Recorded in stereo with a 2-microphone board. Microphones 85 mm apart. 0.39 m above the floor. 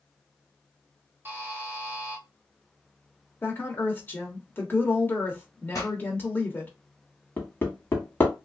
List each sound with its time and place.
1.2 s a buzzer: 25° right (ahead or behind), 0.9 m
3.4 s a woman speaking: 25° left (ahead or behind), 0.8 m
5.7 s a pop: 35° left (ahead or behind), 1.3 m
7.4 s hammering: 25° left (ahead or behind), 1.1 m